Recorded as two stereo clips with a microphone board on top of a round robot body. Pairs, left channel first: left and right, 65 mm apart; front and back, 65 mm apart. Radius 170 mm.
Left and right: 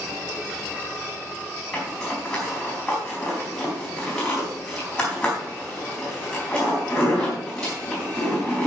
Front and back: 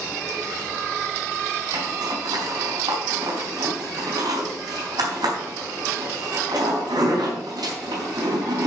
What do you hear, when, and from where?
1.7 s a zipper: 170° left, 4 m